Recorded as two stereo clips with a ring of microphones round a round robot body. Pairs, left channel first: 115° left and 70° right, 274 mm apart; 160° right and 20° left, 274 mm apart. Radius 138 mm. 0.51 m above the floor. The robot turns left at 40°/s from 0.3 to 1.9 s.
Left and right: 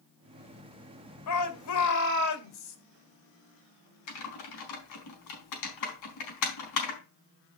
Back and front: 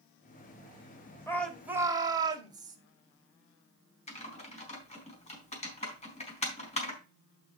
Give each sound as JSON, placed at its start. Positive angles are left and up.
{"t": 1.3, "sound": "a shout", "azimuth_deg": 125, "distance_m": 2.0}
{"t": 4.1, "sound": "typing on a keyboard", "azimuth_deg": 135, "distance_m": 4.0}